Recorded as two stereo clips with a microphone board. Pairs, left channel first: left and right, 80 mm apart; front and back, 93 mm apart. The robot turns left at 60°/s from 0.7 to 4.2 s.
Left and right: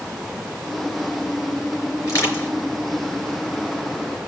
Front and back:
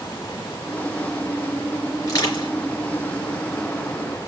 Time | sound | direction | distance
2.0 | crushing | 50° left | 4 m